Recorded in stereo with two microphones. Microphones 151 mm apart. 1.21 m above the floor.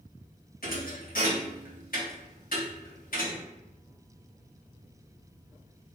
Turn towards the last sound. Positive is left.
turn(degrees=75)  # may be behind; listen again after turning